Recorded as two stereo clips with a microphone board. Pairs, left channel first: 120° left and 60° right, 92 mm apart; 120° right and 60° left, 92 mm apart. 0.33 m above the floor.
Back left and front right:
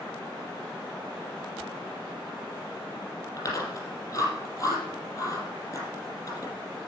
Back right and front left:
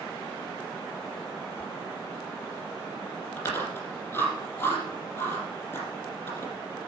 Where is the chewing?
175° left, 5.5 m.